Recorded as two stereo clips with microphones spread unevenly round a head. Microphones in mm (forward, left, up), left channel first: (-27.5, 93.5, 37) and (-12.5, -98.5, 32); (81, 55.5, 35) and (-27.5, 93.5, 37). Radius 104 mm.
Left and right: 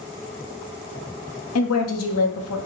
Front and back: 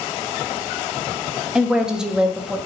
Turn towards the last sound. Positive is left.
turn(degrees=75)